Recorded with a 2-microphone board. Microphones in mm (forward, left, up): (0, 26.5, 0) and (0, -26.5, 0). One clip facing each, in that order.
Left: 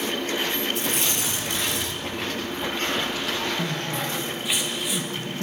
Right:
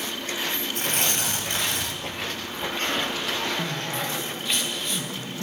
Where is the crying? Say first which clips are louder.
Left 1 dB; 10° left (ahead or behind), 1.1 m.